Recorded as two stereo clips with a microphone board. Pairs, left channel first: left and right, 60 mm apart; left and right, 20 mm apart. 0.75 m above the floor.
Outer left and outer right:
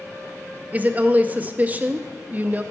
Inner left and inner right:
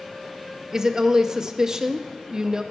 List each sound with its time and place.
0.7 s a woman speaking: 25° right (ahead or behind), 0.5 m